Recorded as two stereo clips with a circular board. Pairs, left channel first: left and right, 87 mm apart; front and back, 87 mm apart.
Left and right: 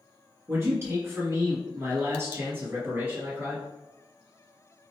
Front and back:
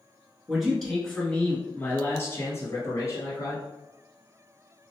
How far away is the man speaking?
About 1.6 m.